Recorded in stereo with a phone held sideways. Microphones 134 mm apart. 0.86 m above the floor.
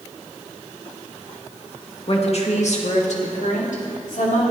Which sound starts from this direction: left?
A woman speaking, at 2.1 s.